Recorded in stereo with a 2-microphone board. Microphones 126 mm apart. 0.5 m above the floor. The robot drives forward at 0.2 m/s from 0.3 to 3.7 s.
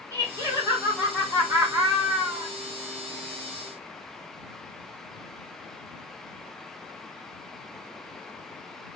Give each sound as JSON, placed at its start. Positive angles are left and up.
{"t": 0.1, "sound": "laughter", "side_deg": -25, "distance_m": 1.4}